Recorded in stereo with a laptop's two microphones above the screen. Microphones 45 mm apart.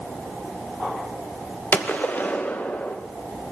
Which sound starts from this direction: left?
A gunshot, at 1.7 s.